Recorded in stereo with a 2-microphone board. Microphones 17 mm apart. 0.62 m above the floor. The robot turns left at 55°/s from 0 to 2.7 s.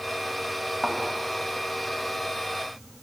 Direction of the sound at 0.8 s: Centre (ahead or behind).